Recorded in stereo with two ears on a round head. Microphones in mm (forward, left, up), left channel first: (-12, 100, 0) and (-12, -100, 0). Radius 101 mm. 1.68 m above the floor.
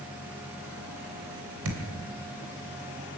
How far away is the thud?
About 3 m.